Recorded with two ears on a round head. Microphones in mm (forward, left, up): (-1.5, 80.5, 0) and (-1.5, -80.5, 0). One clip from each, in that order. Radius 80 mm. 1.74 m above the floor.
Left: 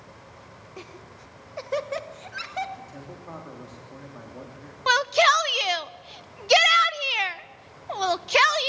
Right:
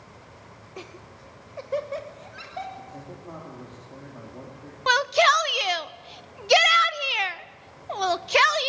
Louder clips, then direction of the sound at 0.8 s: Right 2 dB; 5° right (ahead or behind).